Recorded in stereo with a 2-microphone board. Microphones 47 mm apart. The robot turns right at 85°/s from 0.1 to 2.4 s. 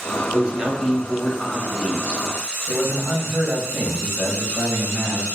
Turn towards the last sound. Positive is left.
turn(degrees=-15)  # may be behind; listen again after turning